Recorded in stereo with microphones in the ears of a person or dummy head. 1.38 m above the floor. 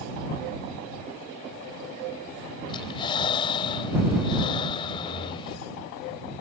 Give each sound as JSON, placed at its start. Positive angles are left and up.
{"t": 2.7, "sound": "breathing", "side_deg": 30}